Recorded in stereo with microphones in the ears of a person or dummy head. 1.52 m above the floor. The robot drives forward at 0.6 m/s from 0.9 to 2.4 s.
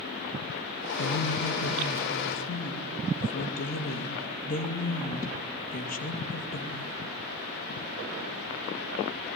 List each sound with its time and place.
1.0 s a woman speaking: 60° left (ahead or behind), 1.9 m; by 7.0 s 40° left (ahead or behind), 2.5 m